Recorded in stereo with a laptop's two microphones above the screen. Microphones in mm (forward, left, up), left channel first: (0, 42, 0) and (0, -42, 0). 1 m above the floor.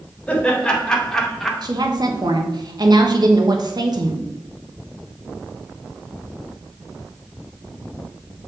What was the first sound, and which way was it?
Laughter, 15° left (ahead or behind).